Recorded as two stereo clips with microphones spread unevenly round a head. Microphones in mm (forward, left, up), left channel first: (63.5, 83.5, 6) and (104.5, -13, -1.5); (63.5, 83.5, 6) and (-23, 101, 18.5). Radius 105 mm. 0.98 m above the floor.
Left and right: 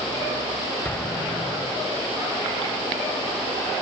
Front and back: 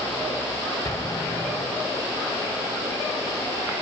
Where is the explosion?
40° left, 5.5 m.